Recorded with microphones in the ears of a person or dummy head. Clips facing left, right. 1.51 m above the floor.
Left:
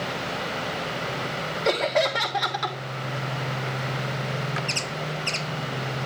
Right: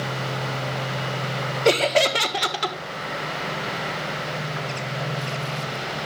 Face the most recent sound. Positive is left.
turn(degrees=-40)  # may be behind; listen again after turning